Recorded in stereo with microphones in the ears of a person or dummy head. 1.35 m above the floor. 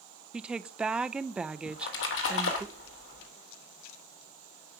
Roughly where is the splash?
Left.